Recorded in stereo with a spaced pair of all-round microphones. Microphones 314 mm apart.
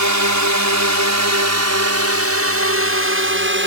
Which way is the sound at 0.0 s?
65° right (ahead or behind).